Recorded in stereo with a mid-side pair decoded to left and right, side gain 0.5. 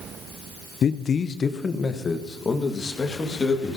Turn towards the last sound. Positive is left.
turn(degrees=30)